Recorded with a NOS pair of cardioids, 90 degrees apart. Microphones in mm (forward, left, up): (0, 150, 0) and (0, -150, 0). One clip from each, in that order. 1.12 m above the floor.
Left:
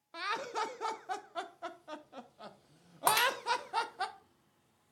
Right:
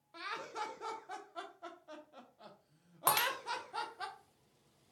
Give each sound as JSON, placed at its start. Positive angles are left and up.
{"t": 0.1, "sound": "laughter", "azimuth_deg": 30, "distance_m": 0.5}
{"t": 3.1, "sound": "breaking glass", "azimuth_deg": 5, "distance_m": 0.8}